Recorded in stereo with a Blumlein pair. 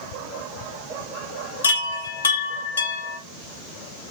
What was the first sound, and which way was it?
A chime, 65° left.